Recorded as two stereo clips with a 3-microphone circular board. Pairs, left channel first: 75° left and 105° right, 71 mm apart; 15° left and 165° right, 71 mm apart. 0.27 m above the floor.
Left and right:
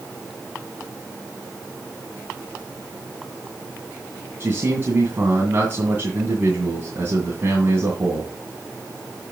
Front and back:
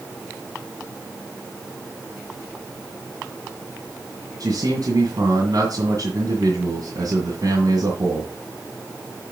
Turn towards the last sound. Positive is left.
turn(degrees=-160)